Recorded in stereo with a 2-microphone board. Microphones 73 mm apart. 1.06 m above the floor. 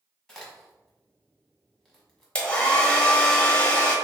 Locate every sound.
0.3 s a crack: 5° left (ahead or behind), 1.2 m
2.4 s a hair dryer: 15° left (ahead or behind), 0.8 m